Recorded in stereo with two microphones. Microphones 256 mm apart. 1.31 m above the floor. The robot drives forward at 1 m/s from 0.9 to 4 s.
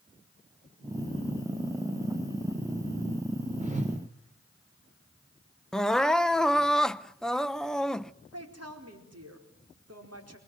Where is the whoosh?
30° right (ahead or behind), 4 m; by 4.0 s 25° right (ahead or behind), 4 m.